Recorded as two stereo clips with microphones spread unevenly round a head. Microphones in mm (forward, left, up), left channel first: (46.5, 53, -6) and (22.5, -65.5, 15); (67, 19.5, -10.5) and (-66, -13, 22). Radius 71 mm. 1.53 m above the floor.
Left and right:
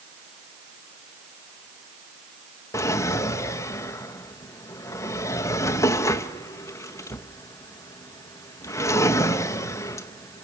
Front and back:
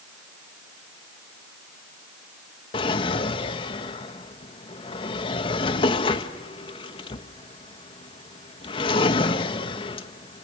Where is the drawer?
30° left, 0.8 m.